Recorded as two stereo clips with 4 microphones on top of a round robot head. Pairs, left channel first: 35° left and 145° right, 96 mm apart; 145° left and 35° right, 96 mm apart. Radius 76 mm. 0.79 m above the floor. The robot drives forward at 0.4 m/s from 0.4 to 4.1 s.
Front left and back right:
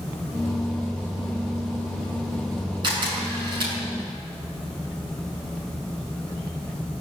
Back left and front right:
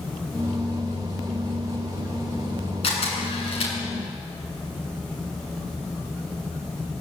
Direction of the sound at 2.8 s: 170° left.